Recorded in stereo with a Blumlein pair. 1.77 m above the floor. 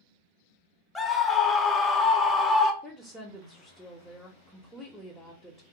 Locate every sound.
0.9 s a scream: 5° left, 0.7 m
2.8 s a woman speaking: straight ahead, 0.6 m